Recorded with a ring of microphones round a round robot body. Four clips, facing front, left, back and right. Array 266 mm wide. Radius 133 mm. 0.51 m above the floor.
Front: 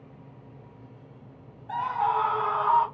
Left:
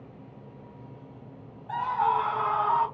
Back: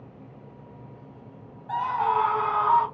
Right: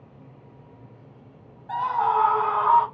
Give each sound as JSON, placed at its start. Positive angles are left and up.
{"t": 1.7, "sound": "a scream", "azimuth_deg": -135, "distance_m": 1.0}